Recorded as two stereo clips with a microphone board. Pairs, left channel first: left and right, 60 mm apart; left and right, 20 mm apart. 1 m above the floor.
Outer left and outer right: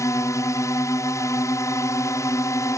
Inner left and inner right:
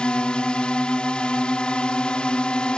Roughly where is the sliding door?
No sliding door in this recording.